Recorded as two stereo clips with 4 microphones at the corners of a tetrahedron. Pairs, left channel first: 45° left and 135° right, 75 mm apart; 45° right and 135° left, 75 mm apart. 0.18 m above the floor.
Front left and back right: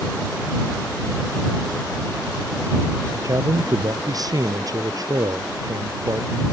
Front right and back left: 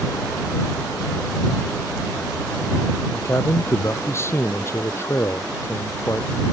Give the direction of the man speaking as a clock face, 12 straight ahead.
3 o'clock.